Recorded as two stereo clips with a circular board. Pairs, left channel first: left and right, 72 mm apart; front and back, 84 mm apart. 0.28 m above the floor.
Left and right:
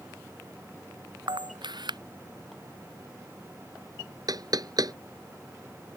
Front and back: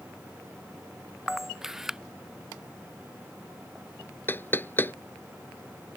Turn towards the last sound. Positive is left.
turn(degrees=-65)